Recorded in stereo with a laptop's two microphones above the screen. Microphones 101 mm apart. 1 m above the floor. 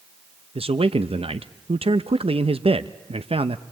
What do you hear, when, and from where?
0.6 s a man speaking: 70° right (ahead or behind), 0.6 m